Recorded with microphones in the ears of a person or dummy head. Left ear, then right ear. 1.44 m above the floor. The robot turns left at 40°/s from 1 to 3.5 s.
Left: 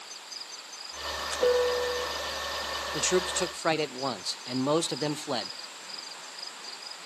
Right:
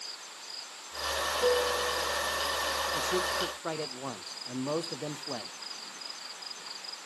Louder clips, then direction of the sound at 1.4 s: Left 4 dB; 75° left (ahead or behind).